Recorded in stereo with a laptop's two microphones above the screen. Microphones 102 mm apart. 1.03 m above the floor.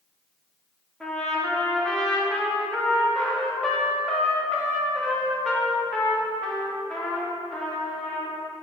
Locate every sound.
1.0 s a trumpet: 5° left (ahead or behind), 1.6 m